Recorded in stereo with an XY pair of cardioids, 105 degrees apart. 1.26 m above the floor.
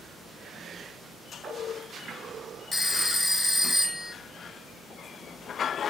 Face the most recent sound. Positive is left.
turn(degrees=35)